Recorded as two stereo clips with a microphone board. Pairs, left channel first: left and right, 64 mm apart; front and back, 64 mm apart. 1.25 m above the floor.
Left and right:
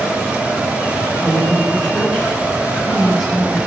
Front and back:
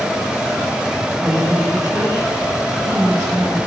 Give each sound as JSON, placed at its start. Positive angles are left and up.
{"t": 1.2, "sound": "a woman speaking", "azimuth_deg": 145, "distance_m": 6.5}